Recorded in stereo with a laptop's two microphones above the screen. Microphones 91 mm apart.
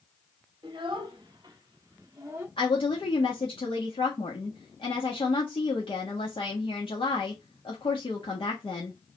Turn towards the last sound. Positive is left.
turn(degrees=75)  # may be behind; listen again after turning